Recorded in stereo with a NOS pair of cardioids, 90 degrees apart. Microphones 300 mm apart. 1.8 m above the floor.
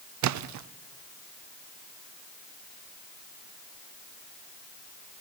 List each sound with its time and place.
0.2 s a splash: 70° right, 0.8 m